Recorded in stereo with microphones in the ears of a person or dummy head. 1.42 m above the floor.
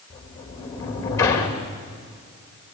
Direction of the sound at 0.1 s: 25° left (ahead or behind).